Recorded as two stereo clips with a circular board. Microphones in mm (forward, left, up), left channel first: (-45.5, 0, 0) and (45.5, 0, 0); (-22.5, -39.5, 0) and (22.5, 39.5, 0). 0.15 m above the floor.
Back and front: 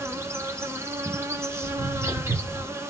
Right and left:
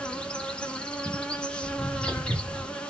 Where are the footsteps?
15° right, 8.5 m.